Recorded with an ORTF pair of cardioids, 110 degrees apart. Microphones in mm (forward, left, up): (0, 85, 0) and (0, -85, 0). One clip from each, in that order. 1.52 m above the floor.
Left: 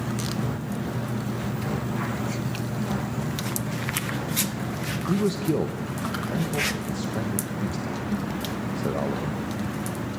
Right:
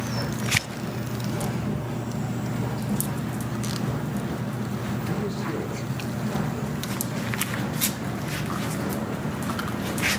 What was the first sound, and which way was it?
A man speaking, 45° left.